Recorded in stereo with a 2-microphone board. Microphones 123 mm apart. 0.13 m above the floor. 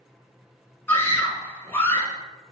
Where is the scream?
20° left (ahead or behind), 1.4 m.